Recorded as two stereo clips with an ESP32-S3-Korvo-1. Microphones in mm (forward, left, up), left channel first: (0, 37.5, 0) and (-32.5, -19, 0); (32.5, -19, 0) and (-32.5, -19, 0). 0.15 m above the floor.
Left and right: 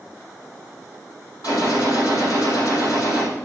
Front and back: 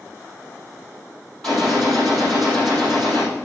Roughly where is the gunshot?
Left.